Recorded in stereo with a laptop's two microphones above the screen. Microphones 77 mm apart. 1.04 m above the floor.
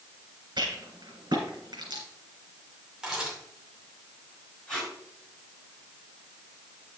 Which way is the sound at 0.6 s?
80° right.